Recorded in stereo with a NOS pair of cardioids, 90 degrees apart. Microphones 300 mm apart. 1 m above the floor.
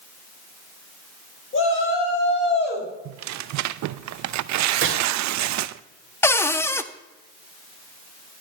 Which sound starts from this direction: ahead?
A cupboard door, at 6.2 s.